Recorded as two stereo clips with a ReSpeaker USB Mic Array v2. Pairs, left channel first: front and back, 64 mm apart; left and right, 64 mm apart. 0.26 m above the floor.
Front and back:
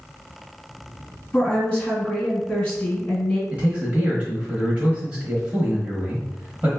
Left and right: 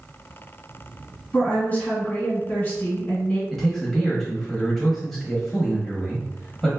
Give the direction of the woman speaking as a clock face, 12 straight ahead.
10 o'clock.